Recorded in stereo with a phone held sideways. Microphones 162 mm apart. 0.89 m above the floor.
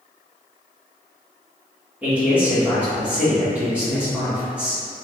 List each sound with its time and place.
2.0 s a man speaking: 10° right (ahead or behind), 1.4 m